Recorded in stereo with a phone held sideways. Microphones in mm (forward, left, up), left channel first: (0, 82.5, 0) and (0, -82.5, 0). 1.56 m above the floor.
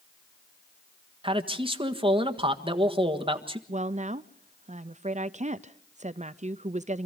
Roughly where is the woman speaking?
Right.